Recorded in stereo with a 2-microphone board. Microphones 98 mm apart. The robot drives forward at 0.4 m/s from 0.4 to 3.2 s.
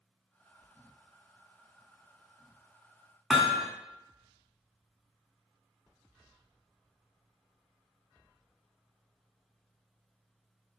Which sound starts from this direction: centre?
Hammering, at 3.3 s.